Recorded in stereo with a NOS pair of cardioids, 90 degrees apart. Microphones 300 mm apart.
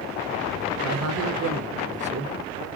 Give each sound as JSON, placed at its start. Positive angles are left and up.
{"t": 0.8, "sound": "a man speaking", "azimuth_deg": -60, "distance_m": 1.0}